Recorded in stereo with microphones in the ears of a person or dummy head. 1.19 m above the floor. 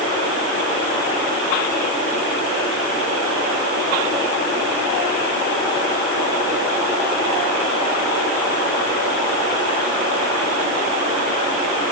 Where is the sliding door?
I don't hear a sliding door.